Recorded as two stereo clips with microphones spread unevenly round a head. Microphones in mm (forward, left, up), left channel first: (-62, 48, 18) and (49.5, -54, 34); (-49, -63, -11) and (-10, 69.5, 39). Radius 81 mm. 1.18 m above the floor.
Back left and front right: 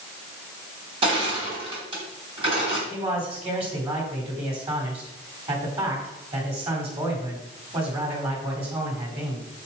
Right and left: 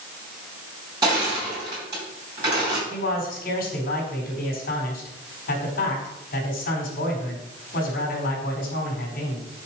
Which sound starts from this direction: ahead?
Crushing, at 1.0 s.